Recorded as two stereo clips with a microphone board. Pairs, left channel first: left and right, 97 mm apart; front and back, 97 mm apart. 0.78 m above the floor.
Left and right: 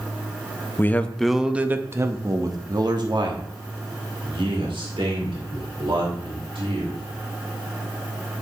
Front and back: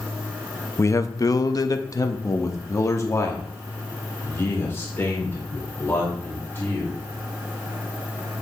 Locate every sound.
0.8 s a man speaking: 40° left, 0.7 m; by 7.0 s 70° right, 3.5 m